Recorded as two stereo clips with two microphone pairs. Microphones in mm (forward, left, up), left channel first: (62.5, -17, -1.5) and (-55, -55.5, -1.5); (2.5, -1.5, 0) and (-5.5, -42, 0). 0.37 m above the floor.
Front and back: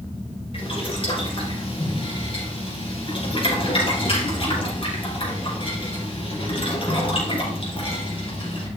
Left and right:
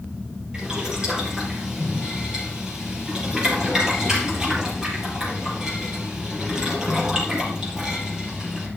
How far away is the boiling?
About 4 m.